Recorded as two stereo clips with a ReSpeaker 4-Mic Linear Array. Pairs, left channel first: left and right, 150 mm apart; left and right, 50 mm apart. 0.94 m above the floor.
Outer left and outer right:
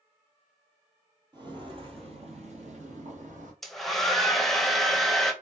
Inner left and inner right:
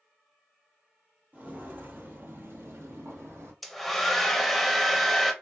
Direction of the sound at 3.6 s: Centre (ahead or behind).